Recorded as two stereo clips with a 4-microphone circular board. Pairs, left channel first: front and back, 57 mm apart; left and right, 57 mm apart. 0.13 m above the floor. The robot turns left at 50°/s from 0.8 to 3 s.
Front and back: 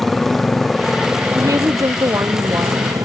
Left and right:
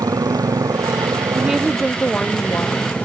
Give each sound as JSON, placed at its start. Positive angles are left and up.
{"t": 0.0, "sound": "a motorcycle", "azimuth_deg": -85}
{"t": 1.4, "sound": "a woman speaking", "azimuth_deg": -165}